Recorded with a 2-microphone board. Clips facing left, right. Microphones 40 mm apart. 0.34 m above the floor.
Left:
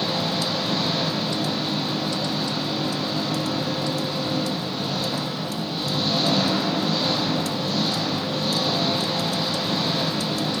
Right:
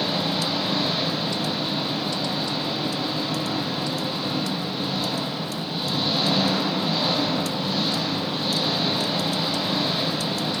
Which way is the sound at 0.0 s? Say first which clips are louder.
Even; 10° right (ahead or behind).